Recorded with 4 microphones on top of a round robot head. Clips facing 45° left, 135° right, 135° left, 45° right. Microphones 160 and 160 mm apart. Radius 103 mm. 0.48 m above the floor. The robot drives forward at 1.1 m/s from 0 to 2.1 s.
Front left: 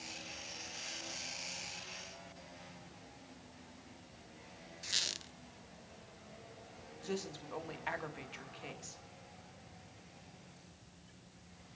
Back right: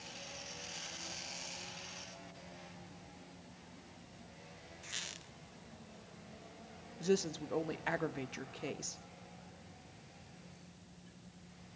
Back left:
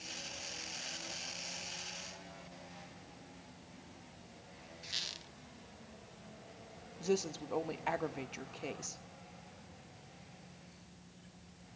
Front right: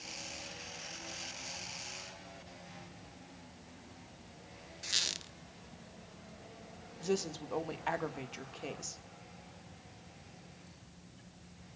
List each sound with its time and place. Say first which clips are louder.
4.8 s a squeak: front left 2 dB, front right 4 dB; 5° right, 0.6 m
7.0 s a woman speaking: back right 8 dB, even; 140° right, 1.5 m